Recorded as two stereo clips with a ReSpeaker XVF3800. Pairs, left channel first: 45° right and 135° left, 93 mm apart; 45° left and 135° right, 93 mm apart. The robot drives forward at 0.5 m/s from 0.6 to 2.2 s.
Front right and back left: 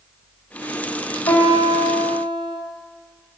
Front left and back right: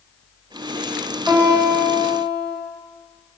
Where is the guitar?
65° right, 0.7 m; by 2.6 s 105° right, 0.7 m.